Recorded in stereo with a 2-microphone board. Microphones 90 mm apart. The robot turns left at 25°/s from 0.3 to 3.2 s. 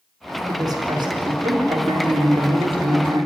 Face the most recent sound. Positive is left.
turn(degrees=-110)